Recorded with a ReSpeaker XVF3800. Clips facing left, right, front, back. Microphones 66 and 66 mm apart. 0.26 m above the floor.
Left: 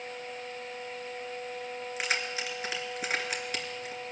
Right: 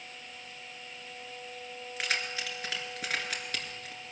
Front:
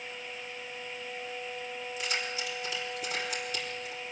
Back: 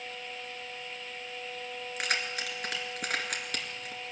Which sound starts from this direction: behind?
Keys jangling, at 2.0 s.